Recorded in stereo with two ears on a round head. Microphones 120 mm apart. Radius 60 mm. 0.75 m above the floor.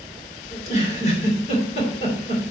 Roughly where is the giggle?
Left.